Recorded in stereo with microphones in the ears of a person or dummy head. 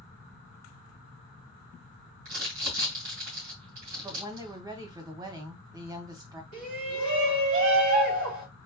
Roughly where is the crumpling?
Right.